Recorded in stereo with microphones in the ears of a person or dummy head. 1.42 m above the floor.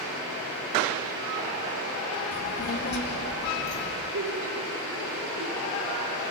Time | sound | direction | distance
2.3 | a child speaking | 50° left (ahead or behind) | 2 m
4.1 | laughter | 70° right (ahead or behind) | 3.5 m